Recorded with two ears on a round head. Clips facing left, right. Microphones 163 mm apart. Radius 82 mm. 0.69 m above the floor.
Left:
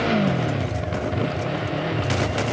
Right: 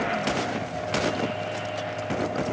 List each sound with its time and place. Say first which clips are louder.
0.0 s a motorcycle: left 5 dB; 50° left (ahead or behind); by 2.5 s 75° left (ahead or behind)